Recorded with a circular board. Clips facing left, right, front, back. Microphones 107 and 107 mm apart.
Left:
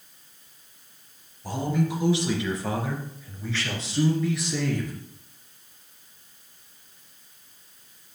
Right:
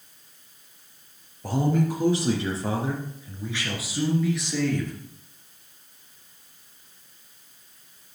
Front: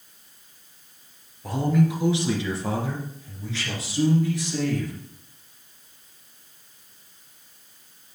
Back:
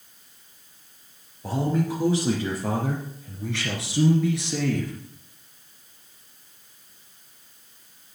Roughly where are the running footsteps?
I don't hear running footsteps.